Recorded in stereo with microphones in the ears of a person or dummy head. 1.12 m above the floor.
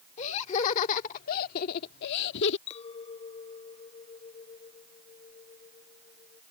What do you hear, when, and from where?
0.2 s laughter: 40° left (ahead or behind); by 2.6 s 65° left (ahead or behind)
2.7 s a clink: 35° left (ahead or behind)